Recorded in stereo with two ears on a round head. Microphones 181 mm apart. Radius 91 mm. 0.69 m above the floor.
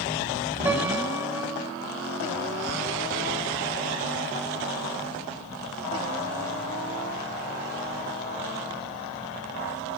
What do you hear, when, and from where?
0.7 s a piano: 5° right (ahead or behind), 4.5 m